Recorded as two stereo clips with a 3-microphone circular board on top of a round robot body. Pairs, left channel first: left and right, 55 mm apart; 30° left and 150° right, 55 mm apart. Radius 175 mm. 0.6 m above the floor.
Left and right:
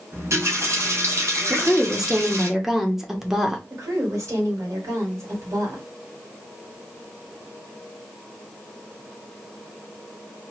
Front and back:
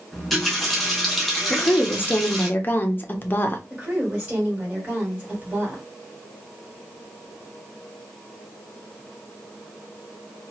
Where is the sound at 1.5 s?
10° right, 0.9 m.